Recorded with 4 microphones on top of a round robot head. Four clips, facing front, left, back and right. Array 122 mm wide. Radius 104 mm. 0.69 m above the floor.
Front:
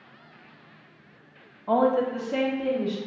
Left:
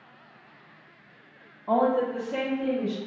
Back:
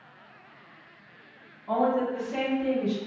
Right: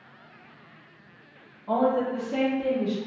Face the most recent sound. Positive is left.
turn(degrees=-30)